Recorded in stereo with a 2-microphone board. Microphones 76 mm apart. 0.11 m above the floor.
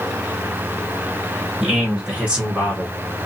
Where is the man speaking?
10° right (ahead or behind), 1.5 m; by 3.0 s 20° right (ahead or behind), 1.5 m.